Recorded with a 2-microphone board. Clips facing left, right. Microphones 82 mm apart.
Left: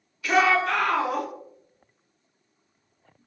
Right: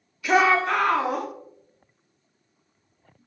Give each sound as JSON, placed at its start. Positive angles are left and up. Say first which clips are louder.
{"t": 0.2, "sound": "a shout", "louder": "right 1 dB", "side_deg": -20, "distance_m": 0.7}